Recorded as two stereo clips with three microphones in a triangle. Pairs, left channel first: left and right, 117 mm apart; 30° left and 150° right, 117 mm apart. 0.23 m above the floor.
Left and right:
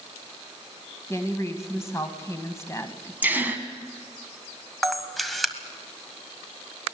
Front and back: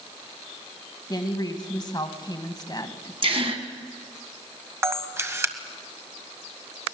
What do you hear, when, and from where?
1.1 s a woman speaking: 45° left, 1.7 m
3.2 s a gasp: 160° right, 1.6 m
4.8 s a camera shutter: straight behind, 1.3 m